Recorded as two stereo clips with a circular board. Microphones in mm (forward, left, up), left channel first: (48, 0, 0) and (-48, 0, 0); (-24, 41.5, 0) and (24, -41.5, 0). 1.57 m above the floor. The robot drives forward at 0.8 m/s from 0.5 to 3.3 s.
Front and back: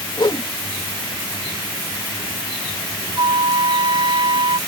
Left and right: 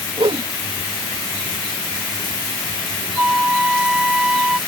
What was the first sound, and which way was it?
A whoosh, 40° right.